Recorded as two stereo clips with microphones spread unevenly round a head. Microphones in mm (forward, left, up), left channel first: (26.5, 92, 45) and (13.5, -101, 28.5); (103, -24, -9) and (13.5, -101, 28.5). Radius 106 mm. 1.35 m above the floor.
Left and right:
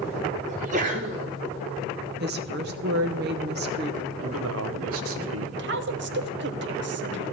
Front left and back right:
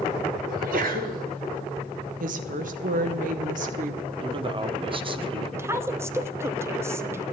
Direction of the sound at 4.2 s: 90° right.